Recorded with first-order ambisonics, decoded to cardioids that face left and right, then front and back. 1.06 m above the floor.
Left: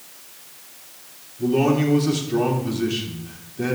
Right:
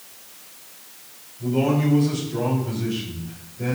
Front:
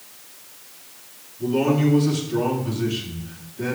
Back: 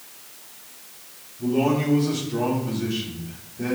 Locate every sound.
1.4 s a man speaking: 75° left, 3.5 m